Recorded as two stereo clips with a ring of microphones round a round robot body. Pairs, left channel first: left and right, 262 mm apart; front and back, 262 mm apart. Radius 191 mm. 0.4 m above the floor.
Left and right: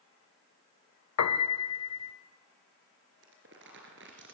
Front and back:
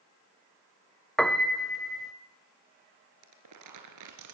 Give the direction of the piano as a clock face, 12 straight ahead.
9 o'clock.